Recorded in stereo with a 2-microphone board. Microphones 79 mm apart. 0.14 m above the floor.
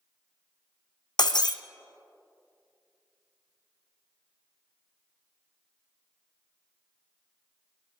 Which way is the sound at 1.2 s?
70° left (ahead or behind).